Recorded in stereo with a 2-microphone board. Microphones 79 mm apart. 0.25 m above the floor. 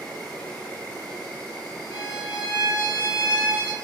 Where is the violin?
60° left (ahead or behind), 1.3 m.